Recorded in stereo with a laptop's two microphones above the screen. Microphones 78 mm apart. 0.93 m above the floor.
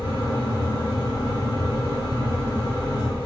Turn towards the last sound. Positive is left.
turn(degrees=75)  # may be behind; listen again after turning